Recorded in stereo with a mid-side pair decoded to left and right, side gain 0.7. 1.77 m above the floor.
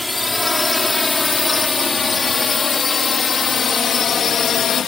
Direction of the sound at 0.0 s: 10° left.